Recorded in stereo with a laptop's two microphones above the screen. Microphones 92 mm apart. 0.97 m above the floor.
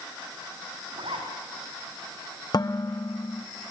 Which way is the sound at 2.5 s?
50° left (ahead or behind).